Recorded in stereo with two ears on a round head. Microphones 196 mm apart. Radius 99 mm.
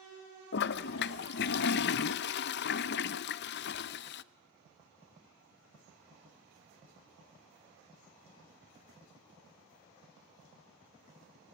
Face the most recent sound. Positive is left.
turn(degrees=50)  # may be behind; listen again after turning